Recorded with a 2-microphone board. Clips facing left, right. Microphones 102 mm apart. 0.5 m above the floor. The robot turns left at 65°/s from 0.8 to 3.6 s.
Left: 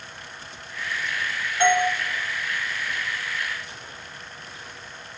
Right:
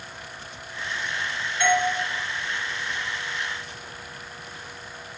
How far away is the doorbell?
About 2.5 m.